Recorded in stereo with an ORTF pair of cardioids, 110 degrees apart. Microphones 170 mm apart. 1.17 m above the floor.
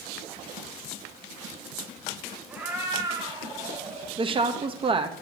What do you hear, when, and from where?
2.5 s a cat meowing: 5° right, 3 m; by 4.1 s 40° right, 4.5 m
4.2 s a woman speaking: 30° right, 1.5 m